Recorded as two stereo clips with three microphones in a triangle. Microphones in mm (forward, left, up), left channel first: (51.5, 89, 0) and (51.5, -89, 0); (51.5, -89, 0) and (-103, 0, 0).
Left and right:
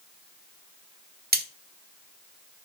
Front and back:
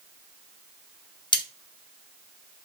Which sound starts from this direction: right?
Cutlery clinking, at 1.3 s.